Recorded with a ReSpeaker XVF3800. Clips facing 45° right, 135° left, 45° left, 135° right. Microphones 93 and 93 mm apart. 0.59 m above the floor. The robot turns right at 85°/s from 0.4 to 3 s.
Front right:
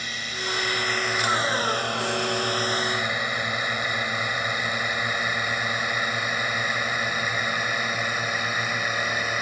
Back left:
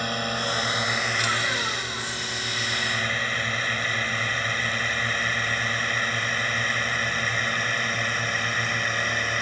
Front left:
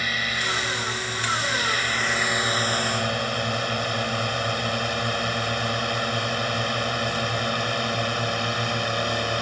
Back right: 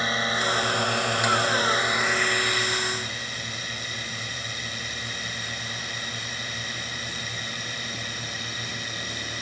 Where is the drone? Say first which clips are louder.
Back left 6 dB, back right 3 dB; 165° left; by 9.4 s 35° left.